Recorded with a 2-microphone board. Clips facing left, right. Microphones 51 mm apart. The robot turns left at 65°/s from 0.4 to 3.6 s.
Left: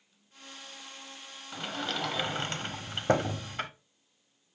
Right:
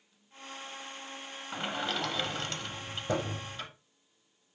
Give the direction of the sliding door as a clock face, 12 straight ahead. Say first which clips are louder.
Right 1 dB; 5 o'clock.